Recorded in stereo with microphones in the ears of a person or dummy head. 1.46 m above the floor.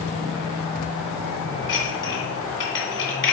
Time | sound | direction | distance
1.7 | dishes clattering | 20° left (ahead or behind) | 2 m